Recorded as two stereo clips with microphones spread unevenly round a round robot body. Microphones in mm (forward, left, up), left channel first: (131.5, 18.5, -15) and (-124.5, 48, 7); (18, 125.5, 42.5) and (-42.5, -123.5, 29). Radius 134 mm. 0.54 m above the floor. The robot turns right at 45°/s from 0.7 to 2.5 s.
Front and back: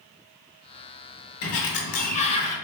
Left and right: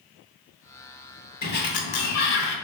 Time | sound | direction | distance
1.4 | a sliding door | 20° left | 0.7 m